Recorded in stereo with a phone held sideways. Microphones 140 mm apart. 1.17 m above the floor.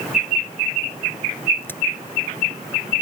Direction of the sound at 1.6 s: 15° left (ahead or behind).